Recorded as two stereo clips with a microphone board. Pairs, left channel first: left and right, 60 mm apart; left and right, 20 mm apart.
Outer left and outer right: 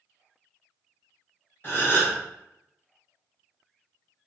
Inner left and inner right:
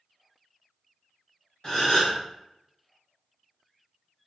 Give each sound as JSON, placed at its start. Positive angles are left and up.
{"t": 1.6, "sound": "a gasp", "side_deg": 35, "distance_m": 1.4}